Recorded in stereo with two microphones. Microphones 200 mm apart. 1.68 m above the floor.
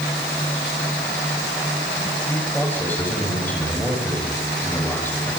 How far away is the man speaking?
About 9 m.